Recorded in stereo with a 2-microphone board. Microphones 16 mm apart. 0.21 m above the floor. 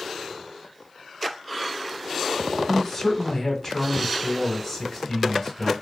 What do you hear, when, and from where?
2.7 s a man speaking: 30° left (ahead or behind), 1.1 m